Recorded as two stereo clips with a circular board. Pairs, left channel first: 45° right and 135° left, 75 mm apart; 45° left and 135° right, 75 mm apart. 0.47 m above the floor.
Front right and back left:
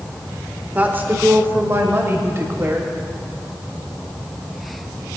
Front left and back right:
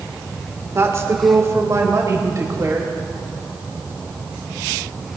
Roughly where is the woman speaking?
Behind.